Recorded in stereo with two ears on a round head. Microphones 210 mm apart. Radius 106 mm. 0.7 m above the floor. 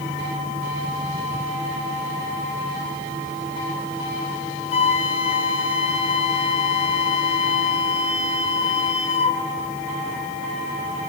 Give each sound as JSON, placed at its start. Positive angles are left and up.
{"t": 4.7, "sound": "a flute", "side_deg": 25, "distance_m": 1.3}